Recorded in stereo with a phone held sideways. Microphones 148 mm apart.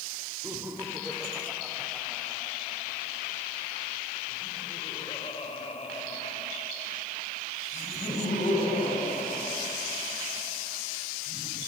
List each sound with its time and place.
0.4 s laughter: 15° right (ahead or behind), 3 m; by 11.6 s 65° left (ahead or behind), 6.5 m